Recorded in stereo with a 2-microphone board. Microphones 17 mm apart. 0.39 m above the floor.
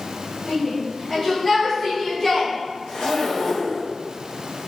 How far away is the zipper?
About 2.5 m.